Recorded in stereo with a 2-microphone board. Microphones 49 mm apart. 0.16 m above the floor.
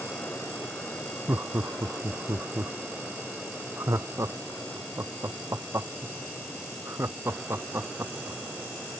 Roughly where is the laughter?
Right.